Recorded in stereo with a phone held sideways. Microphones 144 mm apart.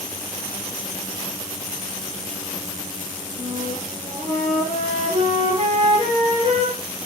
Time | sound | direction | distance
3.4 | a flute | 50° right (ahead or behind) | 8.5 m